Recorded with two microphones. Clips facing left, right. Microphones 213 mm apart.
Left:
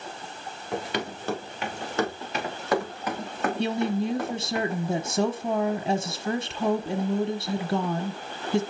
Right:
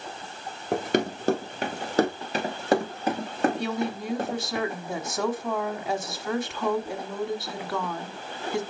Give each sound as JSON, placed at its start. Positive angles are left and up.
{"t": 0.7, "sound": "running footsteps", "side_deg": -50, "distance_m": 2.5}
{"t": 3.6, "sound": "a woman speaking", "side_deg": 30, "distance_m": 1.0}